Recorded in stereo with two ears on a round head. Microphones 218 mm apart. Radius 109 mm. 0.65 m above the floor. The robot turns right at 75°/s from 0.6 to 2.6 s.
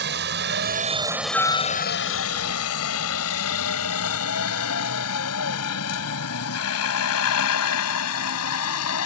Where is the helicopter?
45° right (ahead or behind); by 9.1 s 65° left (ahead or behind).